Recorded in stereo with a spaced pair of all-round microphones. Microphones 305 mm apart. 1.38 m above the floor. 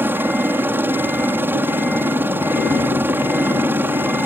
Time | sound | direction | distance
0.0 | a helicopter | 5° right (ahead or behind) | ?